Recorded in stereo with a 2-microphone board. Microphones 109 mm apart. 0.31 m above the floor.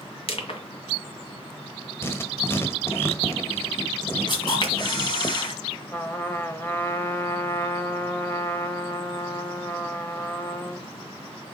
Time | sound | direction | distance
0.3 | crushing | 65° left (ahead or behind) | 1.9 m
2.0 | writing | 25° left (ahead or behind) | 1.1 m
4.3 | a camera shutter | 45° left (ahead or behind) | 2.5 m
5.9 | a trumpet | 20° left (ahead or behind) | 0.9 m